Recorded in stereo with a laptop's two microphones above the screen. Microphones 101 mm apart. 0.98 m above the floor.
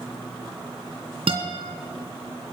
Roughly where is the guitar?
Right.